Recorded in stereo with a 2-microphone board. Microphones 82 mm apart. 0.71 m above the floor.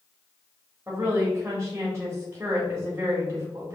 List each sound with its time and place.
0.9 s a woman speaking: 20° right (ahead or behind), 1.4 m